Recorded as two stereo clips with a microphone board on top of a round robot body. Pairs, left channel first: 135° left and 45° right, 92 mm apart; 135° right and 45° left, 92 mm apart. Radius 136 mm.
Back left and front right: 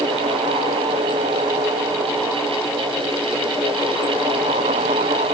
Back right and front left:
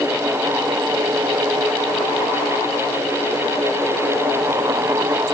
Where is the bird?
No bird in this recording.